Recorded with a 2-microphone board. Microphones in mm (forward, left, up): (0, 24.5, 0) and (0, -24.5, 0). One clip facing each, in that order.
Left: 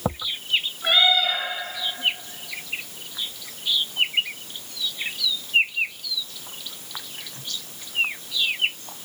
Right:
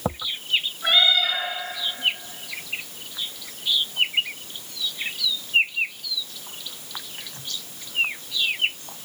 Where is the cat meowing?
5° left (ahead or behind), 4.5 m.